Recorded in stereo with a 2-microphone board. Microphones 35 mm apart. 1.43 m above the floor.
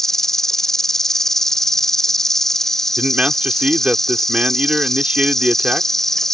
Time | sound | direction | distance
0.0 | an insect | 10° left (ahead or behind) | ?
3.0 | a man speaking | 35° right (ahead or behind) | ?